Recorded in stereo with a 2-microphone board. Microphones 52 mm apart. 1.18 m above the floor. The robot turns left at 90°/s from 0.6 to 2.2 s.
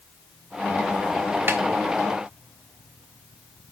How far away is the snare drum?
About 1.3 m.